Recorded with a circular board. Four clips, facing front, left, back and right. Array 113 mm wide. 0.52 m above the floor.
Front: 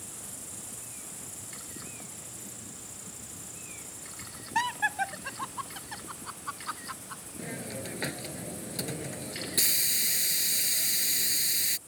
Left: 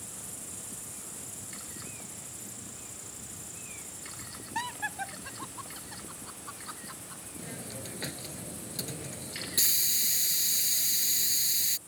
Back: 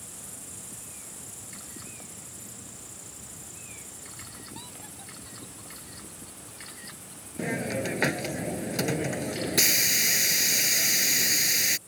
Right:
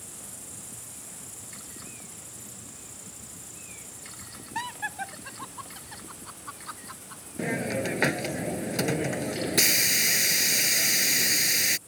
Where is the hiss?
125° right.